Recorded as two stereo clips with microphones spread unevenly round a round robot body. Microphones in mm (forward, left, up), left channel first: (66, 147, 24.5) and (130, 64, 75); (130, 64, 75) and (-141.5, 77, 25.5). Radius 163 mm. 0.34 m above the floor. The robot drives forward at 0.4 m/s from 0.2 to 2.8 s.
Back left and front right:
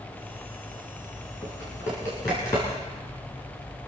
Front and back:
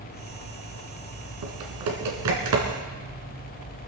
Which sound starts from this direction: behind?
Typing on a keyboard, at 1.4 s.